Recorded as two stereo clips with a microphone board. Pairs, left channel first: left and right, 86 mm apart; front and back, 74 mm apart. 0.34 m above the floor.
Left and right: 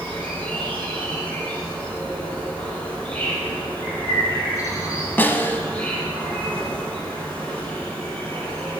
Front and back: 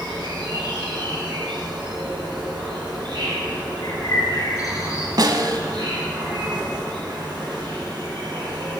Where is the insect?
160° left, 6 m.